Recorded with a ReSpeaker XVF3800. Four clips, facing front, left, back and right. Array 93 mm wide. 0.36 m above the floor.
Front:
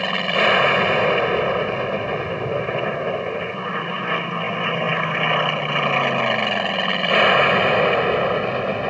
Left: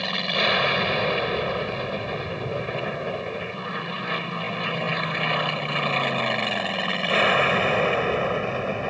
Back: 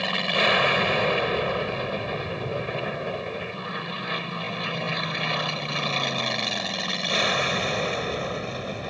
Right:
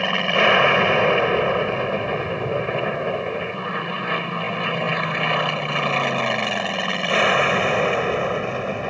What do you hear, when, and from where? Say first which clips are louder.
0.0 s an aircraft: right 7 dB, front 5 dB; 55° right; by 8.9 s 15° right